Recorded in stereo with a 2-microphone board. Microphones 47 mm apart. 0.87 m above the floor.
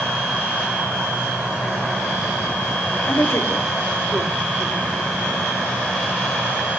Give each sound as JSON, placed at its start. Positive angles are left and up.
{"t": 3.1, "sound": "a woman speaking", "side_deg": 65, "distance_m": 2.0}